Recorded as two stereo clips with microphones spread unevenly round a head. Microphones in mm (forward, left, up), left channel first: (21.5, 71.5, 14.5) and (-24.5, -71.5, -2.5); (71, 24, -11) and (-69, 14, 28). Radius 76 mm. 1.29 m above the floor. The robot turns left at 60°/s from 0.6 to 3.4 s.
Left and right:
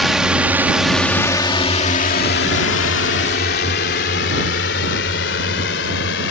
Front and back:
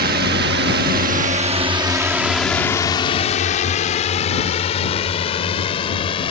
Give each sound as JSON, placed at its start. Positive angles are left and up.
{"t": 0.0, "sound": "a drone", "azimuth_deg": 160}